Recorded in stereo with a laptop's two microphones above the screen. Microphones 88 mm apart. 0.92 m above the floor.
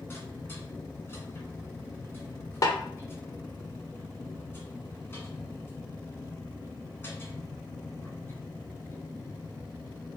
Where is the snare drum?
45° left (ahead or behind), 0.7 m.